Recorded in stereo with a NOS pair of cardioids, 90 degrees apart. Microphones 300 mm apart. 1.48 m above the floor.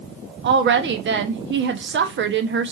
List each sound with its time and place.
0.4 s a woman speaking: 40° right, 0.8 m